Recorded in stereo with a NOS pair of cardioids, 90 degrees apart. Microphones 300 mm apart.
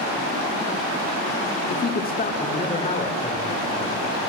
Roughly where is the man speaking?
Ahead left.